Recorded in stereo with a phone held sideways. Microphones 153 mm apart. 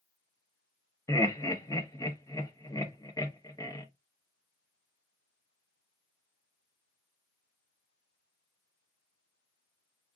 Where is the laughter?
25° left (ahead or behind), 1.2 m.